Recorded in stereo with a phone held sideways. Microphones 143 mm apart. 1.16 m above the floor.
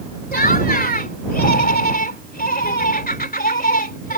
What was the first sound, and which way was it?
Laughter, 80° left.